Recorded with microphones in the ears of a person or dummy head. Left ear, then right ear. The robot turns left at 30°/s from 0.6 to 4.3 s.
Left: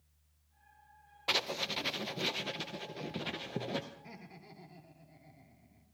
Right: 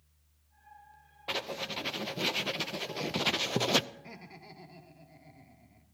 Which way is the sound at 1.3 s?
25° left.